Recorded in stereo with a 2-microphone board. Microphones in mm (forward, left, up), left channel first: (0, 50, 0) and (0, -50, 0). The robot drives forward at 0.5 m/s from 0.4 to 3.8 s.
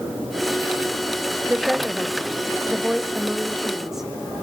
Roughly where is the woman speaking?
Centre.